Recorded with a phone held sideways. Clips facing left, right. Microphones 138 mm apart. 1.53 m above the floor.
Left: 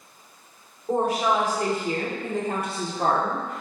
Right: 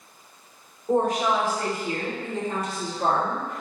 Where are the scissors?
I don't hear scissors.